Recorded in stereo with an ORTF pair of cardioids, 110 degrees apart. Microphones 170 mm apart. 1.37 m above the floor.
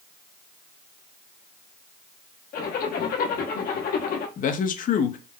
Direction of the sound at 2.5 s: 55° left.